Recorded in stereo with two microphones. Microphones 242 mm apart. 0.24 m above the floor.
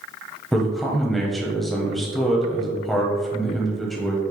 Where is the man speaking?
Centre (ahead or behind), 0.9 m.